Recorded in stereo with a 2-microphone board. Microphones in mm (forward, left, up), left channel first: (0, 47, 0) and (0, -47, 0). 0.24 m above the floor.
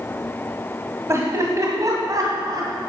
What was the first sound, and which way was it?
Laughter, 30° right (ahead or behind).